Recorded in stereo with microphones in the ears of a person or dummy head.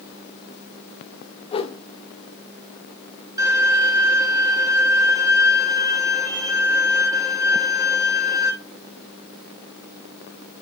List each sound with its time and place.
1.5 s a whoosh: 30° left (ahead or behind), 0.6 m
3.4 s a violin: 20° right (ahead or behind), 1.5 m